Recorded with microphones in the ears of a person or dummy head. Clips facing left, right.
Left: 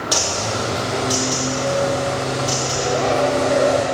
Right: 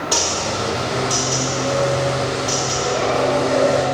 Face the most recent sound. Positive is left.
turn(degrees=35)  # may be behind; listen again after turning